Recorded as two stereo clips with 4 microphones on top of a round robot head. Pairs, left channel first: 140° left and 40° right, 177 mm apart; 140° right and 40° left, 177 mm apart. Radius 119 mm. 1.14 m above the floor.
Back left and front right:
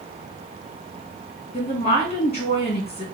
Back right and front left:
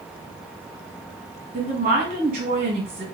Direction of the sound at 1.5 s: 85° left.